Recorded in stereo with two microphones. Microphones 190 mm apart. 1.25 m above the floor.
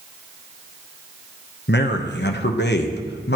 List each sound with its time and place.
1.7 s a man speaking: 75° left (ahead or behind), 0.9 m